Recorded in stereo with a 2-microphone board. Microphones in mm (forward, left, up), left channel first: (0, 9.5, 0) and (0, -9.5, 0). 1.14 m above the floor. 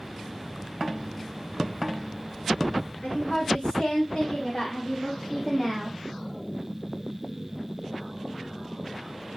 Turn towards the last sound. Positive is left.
turn(degrees=-5)  # may be behind; listen again after turning